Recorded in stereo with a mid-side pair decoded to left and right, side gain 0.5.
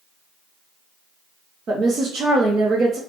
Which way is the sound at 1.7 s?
50° right.